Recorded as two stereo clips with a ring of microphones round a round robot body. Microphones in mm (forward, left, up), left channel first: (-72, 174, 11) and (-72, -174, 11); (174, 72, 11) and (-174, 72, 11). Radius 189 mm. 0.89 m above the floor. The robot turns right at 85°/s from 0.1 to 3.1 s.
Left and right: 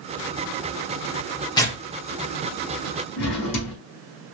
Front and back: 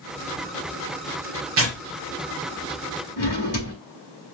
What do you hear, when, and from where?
1.6 s tearing paper: 160° left, 1.1 m; by 1.8 s straight behind, 1.1 m
3.2 s a drawer: 50° left, 1.5 m